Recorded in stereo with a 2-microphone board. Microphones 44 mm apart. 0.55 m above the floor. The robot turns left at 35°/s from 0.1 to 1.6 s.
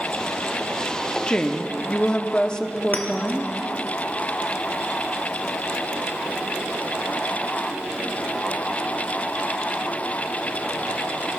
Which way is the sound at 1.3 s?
25° left (ahead or behind).